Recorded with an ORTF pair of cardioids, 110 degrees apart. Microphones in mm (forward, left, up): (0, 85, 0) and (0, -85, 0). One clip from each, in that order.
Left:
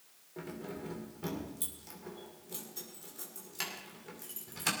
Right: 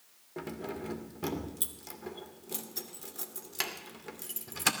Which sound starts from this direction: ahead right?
Keys jangling, at 0.4 s.